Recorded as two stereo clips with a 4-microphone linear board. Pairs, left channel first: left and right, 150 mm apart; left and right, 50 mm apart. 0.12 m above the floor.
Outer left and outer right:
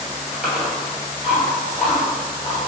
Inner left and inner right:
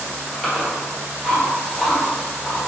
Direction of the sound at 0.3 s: Centre (ahead or behind).